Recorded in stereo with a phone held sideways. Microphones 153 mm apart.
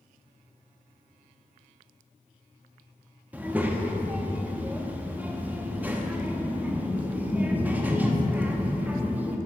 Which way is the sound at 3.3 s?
10° right (ahead or behind).